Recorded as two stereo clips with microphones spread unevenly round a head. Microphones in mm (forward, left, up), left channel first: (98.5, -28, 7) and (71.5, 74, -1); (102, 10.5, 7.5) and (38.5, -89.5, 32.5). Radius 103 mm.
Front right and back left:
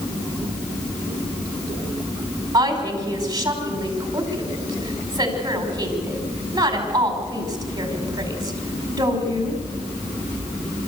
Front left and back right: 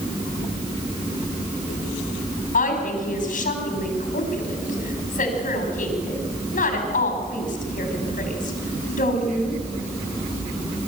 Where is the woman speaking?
50° left, 5.5 m.